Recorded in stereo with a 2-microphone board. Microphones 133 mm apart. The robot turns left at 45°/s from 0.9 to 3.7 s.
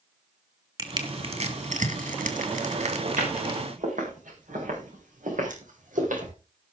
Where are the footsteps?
75° right (ahead or behind), 7.5 m.